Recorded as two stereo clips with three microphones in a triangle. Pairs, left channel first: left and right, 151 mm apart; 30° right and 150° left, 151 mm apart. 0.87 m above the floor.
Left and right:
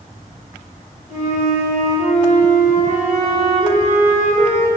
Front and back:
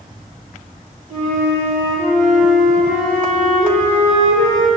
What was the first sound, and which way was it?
A flute, 120° left.